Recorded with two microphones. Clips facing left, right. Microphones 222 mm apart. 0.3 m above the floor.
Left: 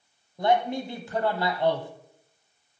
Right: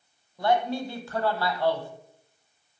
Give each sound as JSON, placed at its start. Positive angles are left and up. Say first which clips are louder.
{"t": 0.4, "sound": "a man speaking", "louder": "left 1 dB", "side_deg": 20, "distance_m": 1.3}